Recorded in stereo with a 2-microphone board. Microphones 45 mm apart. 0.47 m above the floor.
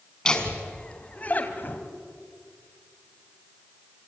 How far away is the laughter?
About 3.5 m.